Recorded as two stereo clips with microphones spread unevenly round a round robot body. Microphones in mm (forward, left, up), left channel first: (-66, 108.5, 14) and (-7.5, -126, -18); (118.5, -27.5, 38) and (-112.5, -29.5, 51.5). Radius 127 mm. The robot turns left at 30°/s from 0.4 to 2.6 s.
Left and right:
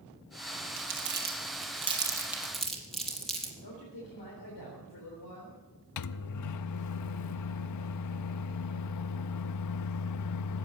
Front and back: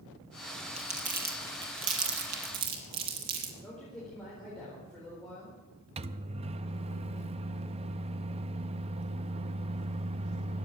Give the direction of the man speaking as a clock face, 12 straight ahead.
9 o'clock.